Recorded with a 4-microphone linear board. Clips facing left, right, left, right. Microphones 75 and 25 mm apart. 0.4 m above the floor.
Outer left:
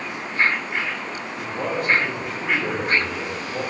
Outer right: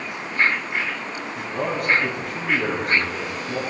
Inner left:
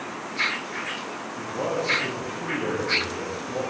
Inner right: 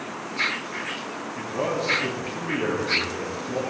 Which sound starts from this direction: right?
A man speaking, at 1.4 s.